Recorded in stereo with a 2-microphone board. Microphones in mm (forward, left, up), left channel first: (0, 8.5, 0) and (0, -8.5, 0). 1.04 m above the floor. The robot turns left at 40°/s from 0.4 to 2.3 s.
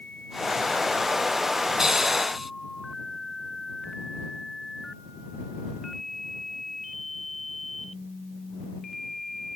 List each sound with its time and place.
1.8 s a hiss: 25° right (ahead or behind); by 2.5 s 5° right (ahead or behind)